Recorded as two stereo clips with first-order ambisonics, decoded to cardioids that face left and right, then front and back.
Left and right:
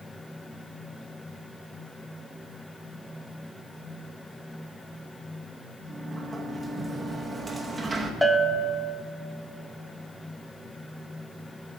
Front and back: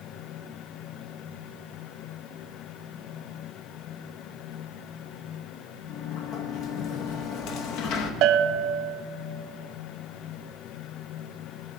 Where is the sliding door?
15° right, 0.7 m.